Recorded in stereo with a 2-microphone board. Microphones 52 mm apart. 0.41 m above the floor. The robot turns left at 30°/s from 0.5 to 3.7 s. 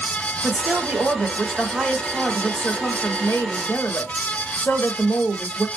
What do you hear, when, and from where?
0.4 s a woman speaking: 150° right, 1.9 m; by 5.7 s 115° left, 1.9 m